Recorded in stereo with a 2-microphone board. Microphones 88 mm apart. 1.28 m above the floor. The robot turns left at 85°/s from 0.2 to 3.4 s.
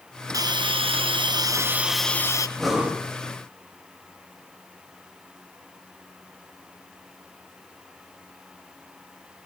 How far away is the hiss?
About 0.7 m.